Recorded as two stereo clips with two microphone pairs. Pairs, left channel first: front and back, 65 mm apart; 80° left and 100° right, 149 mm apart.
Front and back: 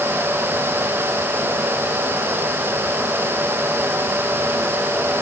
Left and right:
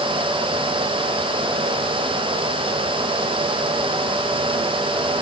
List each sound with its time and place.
Only background noise.